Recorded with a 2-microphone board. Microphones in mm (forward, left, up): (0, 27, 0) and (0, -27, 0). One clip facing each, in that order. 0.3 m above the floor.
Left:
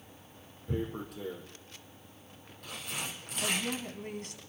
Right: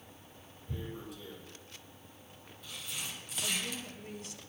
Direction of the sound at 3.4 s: 65° left (ahead or behind).